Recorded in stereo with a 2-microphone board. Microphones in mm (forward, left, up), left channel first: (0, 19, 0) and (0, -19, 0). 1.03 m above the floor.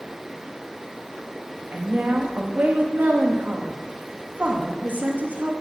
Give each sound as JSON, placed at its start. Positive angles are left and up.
{"t": 1.7, "sound": "a woman speaking", "side_deg": -50, "distance_m": 1.5}